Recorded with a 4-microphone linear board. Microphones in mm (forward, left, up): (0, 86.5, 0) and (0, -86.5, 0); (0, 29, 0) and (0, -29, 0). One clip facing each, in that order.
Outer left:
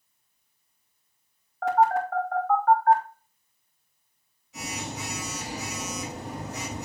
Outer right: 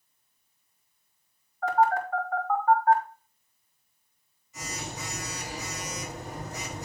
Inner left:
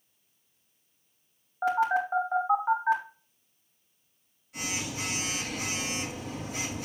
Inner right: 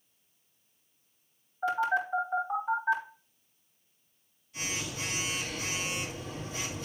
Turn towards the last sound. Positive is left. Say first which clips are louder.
# outer left 2 dB, inner left 3 dB
turn(degrees=80)